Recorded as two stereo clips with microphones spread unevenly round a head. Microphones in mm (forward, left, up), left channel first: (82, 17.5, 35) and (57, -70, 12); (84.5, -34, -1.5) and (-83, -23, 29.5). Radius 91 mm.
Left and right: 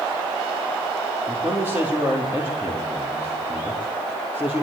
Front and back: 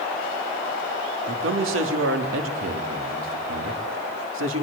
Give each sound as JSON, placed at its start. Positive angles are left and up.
{"t": 1.3, "sound": "a man speaking", "azimuth_deg": 175, "distance_m": 4.0}